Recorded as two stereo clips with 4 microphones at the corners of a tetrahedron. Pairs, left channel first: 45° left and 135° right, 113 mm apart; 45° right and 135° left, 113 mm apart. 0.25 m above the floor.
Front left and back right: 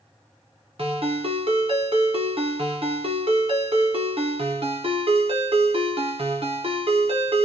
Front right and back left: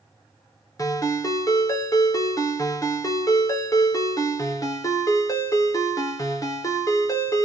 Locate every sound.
0.8 s a ringtone: 100° right, 1.0 m